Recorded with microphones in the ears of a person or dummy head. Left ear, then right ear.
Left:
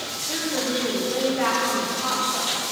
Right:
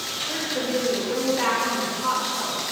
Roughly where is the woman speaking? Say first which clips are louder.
Left 2 dB; centre.